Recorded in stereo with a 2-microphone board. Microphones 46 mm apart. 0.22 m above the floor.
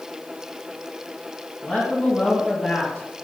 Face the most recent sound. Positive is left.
turn(degrees=20)  # may be behind; listen again after turning